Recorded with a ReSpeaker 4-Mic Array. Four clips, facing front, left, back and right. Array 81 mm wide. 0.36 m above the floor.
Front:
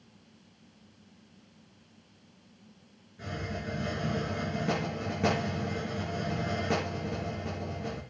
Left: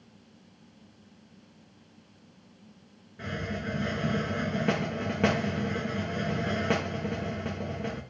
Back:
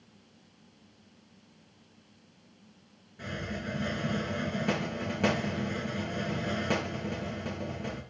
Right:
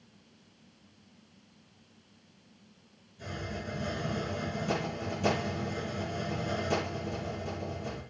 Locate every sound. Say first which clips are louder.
3.2 s a hiss: left 5 dB, even; 100° left, 4.5 m